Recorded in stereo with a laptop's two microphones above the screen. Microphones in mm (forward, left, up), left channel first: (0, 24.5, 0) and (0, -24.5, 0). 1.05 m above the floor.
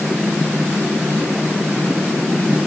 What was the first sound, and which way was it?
Only background noise.